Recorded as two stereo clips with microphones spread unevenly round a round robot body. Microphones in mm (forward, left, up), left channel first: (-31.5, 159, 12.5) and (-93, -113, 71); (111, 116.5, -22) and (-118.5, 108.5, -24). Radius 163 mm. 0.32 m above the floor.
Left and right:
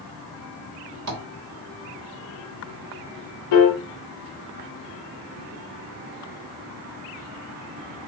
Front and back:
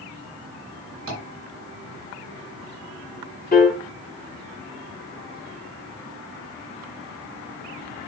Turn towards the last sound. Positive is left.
turn(degrees=50)